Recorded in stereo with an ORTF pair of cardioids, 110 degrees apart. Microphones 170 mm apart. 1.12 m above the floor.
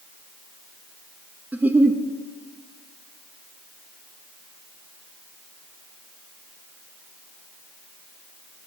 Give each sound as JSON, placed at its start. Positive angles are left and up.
{"t": 1.5, "sound": "a giggle", "azimuth_deg": -10, "distance_m": 1.0}